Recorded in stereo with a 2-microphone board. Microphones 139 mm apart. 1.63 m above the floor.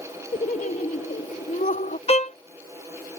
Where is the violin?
45° left (ahead or behind).